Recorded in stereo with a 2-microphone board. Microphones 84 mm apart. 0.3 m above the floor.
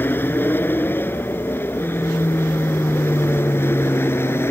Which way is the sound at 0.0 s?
25° left (ahead or behind).